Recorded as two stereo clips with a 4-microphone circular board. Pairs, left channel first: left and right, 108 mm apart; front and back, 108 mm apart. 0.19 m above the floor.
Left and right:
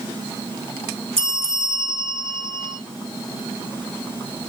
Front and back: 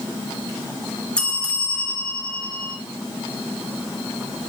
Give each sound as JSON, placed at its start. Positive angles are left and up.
{"t": 1.2, "sound": "a bell", "azimuth_deg": -80, "distance_m": 0.8}